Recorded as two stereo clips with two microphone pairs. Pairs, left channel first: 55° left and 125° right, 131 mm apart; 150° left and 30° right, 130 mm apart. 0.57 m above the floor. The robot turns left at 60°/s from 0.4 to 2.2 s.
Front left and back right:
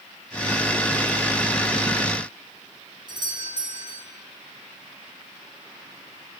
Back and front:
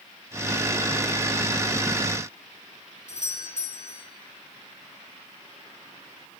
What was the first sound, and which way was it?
A doorbell, straight behind.